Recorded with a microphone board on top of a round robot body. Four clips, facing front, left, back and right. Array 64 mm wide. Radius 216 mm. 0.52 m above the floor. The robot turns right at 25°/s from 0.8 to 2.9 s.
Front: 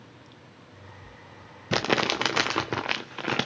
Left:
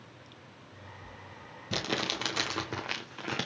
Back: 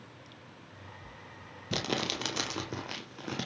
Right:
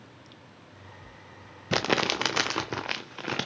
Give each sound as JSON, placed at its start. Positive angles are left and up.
{"t": 1.7, "sound": "crumpling", "azimuth_deg": -45, "distance_m": 0.7}